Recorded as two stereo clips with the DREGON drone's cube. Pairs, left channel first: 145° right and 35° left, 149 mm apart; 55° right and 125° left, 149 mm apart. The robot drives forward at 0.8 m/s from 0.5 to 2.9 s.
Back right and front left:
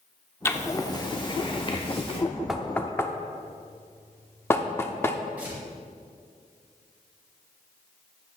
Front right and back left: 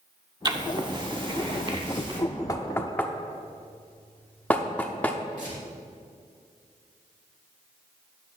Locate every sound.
0.5 s writing: 155° left, 1.0 m; by 2.2 s 175° left, 2 m
2.5 s knocking: 50° right, 0.9 m; by 5.2 s 110° right, 0.8 m
5.4 s tearing paper: 115° left, 4 m